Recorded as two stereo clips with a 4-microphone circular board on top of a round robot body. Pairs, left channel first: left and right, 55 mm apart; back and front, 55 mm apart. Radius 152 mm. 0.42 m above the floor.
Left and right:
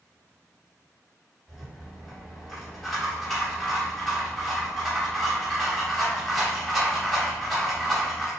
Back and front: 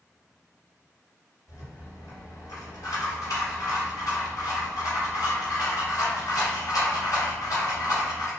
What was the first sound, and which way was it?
A rattle, straight behind.